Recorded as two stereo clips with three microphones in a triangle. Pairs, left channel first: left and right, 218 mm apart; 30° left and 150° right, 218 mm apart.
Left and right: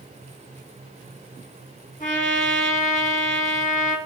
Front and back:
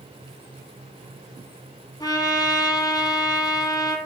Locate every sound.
2.0 s a trumpet: 90° left, 2 m